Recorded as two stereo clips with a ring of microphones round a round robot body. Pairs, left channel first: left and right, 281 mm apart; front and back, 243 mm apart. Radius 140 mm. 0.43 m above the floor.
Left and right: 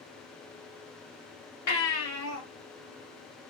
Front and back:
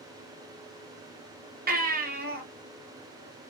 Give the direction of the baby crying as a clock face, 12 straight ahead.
8 o'clock.